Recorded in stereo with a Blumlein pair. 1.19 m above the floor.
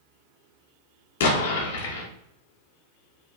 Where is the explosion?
55° left, 0.9 m.